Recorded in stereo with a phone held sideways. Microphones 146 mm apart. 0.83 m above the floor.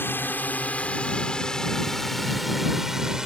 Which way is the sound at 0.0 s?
15° left (ahead or behind).